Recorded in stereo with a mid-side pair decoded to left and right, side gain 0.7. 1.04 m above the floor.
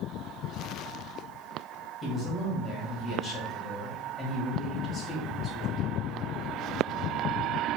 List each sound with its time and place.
2.0 s a man speaking: 40° left, 1.9 m